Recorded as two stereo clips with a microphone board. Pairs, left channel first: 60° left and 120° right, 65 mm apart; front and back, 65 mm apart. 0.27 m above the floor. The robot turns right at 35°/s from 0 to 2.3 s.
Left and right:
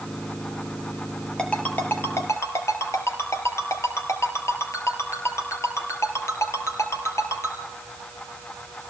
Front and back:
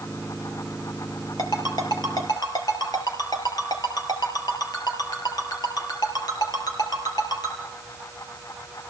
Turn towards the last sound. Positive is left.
turn(degrees=15)